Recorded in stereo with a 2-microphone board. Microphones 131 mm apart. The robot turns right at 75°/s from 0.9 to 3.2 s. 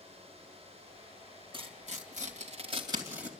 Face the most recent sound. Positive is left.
turn(degrees=-10)  # may be behind; listen again after turning